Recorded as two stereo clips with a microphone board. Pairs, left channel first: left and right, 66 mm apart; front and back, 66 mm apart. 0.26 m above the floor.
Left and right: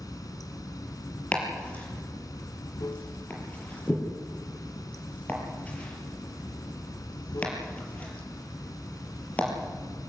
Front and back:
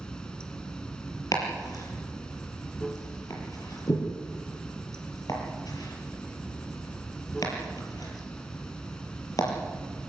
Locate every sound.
0.0 s running water: 75° left, 1.6 m
1.3 s chopping: 20° left, 6 m